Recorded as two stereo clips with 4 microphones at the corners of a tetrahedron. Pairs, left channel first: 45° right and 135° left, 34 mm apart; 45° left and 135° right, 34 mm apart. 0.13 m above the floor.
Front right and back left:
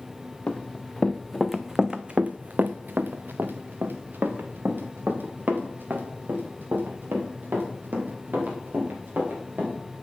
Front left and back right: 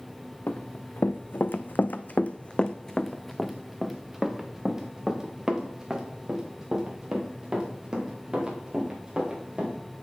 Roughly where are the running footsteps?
Ahead.